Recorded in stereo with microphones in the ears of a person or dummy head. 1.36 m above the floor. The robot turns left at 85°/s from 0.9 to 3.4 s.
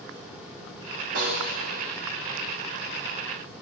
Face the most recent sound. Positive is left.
turn(degrees=65)